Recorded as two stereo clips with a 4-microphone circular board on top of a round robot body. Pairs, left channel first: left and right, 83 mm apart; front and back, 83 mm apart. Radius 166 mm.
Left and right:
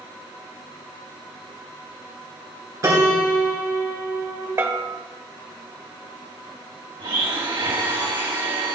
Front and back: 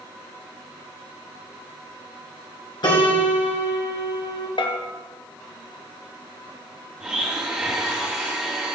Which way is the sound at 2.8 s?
35° right.